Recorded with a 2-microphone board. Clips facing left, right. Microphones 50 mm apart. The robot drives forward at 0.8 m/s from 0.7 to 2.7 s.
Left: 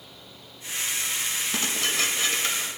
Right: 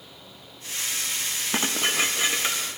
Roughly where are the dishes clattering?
Right.